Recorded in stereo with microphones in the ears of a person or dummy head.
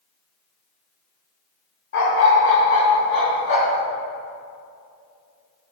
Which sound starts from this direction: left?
A dog barking, at 1.9 s.